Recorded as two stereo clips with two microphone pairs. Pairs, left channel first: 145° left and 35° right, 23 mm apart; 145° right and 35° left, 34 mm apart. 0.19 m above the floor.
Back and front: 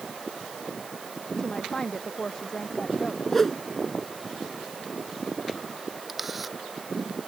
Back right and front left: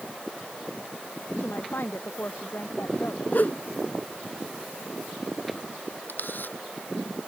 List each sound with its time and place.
1.4 s a woman speaking: 145° right
3.3 s a whoosh: 140° right
6.1 s a camera shutter: 120° right